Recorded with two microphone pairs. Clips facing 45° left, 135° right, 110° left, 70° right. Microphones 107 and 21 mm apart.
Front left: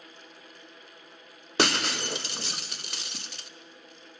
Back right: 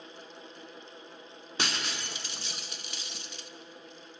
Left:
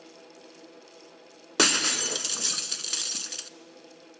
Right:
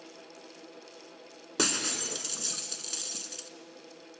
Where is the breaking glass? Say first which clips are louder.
Front left 9 dB, left 7 dB; 55° left, 0.5 m.